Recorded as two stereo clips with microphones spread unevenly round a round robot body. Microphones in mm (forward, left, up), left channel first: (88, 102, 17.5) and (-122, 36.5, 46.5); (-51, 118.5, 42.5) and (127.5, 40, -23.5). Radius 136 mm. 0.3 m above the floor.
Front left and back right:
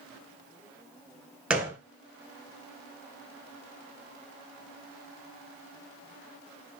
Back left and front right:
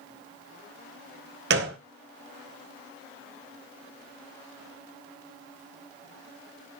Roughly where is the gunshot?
Right.